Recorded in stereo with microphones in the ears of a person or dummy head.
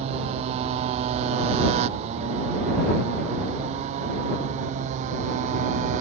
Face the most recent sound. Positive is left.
turn(degrees=-45)  # may be behind; listen again after turning